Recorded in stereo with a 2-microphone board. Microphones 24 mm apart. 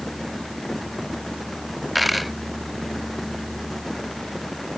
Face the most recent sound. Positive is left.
turn(degrees=0)  # may be behind; listen again after turning